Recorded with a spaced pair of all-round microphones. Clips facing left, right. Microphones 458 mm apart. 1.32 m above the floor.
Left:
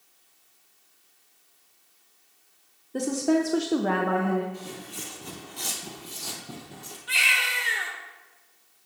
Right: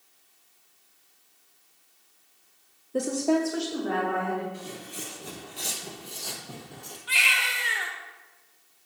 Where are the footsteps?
10° left (ahead or behind), 1.4 m; by 7.0 s 25° left (ahead or behind), 1.7 m.